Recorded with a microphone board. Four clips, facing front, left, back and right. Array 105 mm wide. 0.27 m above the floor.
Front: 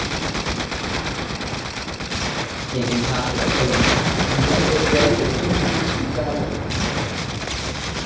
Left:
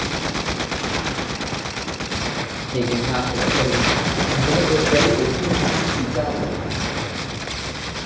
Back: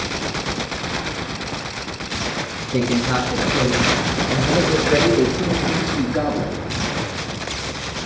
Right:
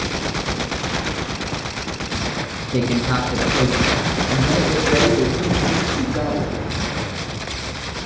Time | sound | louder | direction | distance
2.7 | a man speaking | right 2 dB, back 3 dB | 120° right | 3 m